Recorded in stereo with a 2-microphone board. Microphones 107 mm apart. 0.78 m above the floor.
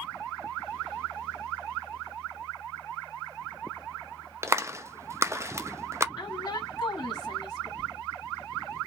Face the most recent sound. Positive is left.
turn(degrees=50)  # may be behind; listen again after turning